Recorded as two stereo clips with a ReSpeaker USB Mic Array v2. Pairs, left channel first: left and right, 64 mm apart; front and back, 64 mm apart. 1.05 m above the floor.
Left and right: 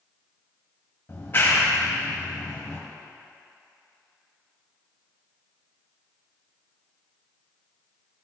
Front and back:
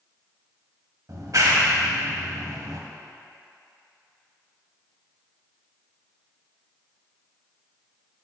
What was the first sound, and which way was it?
A clap, 150° left.